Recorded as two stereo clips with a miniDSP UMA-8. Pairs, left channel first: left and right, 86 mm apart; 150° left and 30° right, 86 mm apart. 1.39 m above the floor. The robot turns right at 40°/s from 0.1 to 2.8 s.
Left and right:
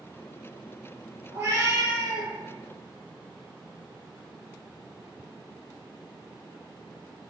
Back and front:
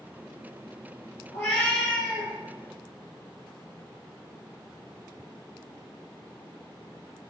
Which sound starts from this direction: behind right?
A cat meowing, at 1.3 s.